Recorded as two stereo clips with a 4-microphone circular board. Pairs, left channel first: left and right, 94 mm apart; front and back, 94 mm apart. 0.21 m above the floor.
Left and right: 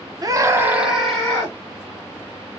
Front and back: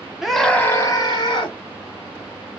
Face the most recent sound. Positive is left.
turn(degrees=20)